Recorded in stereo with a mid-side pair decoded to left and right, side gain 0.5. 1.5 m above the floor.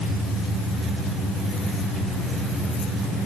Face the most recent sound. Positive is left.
No sound to turn to.